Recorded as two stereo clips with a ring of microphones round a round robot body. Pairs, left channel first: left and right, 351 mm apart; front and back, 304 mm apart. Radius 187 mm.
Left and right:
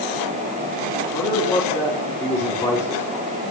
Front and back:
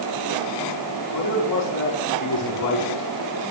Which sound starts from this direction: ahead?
A man speaking, at 1.1 s.